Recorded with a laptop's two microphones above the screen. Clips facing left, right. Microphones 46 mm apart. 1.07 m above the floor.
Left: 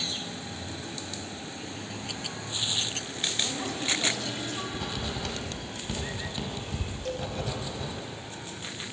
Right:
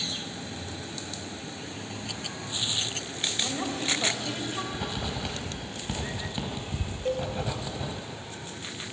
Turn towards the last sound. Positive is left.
turn(degrees=-30)  # may be behind; listen again after turning